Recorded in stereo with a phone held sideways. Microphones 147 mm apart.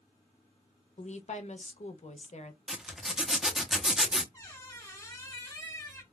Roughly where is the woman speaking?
Left.